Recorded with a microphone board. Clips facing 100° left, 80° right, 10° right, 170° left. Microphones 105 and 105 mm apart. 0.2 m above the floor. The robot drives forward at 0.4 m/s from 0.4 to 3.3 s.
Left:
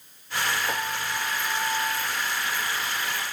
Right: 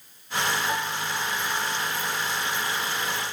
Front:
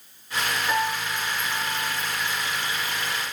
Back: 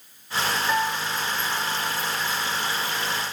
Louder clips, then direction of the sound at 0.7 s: Right 1 dB, back 1 dB; 65° left.